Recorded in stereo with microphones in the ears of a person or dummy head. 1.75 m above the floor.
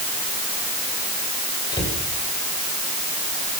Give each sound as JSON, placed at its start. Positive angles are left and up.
{"t": 1.7, "sound": "a cupboard door", "side_deg": 20, "distance_m": 6.0}